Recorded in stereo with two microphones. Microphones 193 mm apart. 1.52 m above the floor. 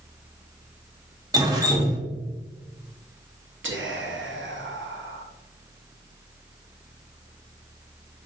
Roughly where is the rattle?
No rattle in this recording.